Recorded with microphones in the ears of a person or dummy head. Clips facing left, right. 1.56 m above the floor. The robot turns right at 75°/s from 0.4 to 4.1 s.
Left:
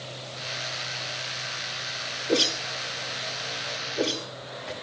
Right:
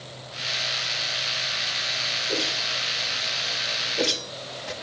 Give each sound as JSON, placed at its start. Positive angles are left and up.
{"t": 2.3, "sound": "a whoosh", "side_deg": 45, "distance_m": 1.1}